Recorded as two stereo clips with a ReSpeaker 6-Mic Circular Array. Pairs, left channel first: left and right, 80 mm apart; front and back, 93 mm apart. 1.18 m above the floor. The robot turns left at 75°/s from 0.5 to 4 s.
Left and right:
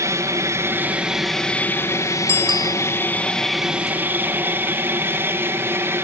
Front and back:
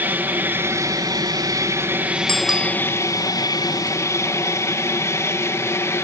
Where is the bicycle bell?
80° right; by 2.8 s 115° right.